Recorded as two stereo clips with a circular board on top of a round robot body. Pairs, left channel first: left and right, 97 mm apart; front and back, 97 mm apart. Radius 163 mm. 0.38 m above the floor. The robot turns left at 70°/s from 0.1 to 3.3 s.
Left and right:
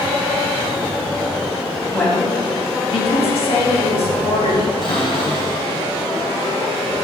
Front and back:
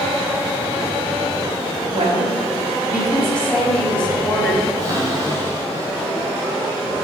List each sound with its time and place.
1.9 s a woman speaking: straight behind, 4.5 m; by 4.7 s 80° left, 4.5 m
4.8 s a cupboard door: 125° left, 4 m